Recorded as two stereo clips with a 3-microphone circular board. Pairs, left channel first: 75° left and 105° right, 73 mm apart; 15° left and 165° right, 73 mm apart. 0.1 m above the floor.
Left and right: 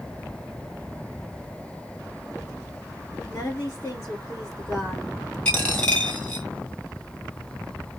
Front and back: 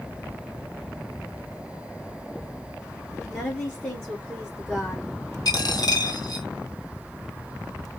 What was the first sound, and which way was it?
A woman speaking, 90° left.